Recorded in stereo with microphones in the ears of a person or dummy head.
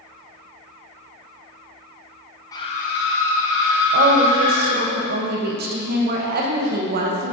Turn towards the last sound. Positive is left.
turn(degrees=-50)  # may be behind; listen again after turning